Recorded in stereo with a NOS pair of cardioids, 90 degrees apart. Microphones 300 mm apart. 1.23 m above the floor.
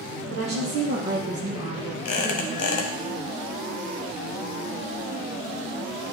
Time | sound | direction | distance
0.3 | a woman speaking | 60° right | 1.7 m
2.0 | a squeak | 55° left | 1.3 m